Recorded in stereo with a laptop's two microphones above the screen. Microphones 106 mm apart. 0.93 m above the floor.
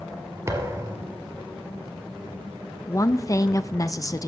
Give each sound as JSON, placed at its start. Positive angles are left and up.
{"t": 0.5, "sound": "a thud", "side_deg": -30, "distance_m": 2.5}
{"t": 2.9, "sound": "a woman speaking", "side_deg": 30, "distance_m": 0.5}